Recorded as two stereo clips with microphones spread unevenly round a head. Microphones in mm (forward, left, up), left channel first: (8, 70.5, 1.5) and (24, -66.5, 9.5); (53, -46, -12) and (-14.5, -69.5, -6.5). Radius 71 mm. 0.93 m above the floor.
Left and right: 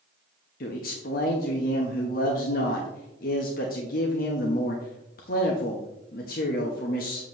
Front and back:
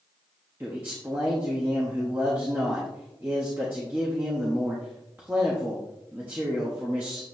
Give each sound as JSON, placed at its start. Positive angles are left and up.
{"t": 0.6, "sound": "a man speaking", "azimuth_deg": 120, "distance_m": 1.0}